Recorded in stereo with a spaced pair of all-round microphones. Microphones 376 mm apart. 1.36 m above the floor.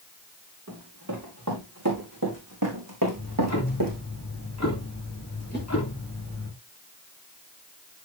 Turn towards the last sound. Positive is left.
turn(degrees=25)  # may be behind; listen again after turning